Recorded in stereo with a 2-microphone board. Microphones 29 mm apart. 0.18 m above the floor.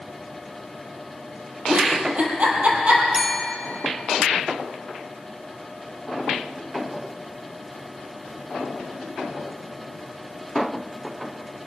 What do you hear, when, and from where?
1.7 s a giggle: 55° right (ahead or behind), 3.5 m
3.1 s a bell: 5° left (ahead or behind), 1.5 m